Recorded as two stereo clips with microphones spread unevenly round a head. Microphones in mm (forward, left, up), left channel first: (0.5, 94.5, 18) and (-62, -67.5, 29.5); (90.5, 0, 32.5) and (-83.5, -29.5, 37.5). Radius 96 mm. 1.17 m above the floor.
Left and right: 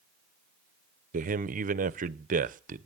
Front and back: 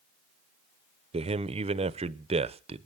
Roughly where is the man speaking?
Behind right.